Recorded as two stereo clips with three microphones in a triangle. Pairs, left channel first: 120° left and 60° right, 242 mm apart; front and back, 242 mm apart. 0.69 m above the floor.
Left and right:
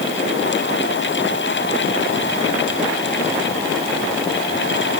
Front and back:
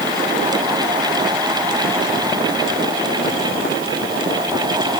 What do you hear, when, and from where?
Only background noise.